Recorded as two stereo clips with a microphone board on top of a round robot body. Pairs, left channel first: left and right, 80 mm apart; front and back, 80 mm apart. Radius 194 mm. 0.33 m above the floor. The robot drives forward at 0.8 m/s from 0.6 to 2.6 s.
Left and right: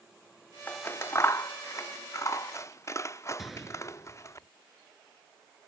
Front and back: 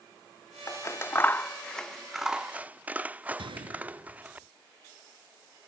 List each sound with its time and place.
0.7 s scissors: 35° left; by 4.4 s 120° left
3.4 s a gunshot: straight behind